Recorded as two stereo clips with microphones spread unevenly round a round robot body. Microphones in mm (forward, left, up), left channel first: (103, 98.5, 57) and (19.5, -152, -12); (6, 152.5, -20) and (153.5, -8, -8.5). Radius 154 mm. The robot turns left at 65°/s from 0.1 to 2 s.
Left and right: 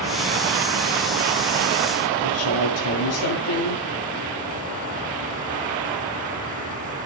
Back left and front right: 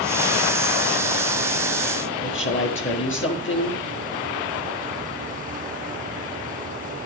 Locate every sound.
2.2 s a woman speaking: 105° left, 6.5 m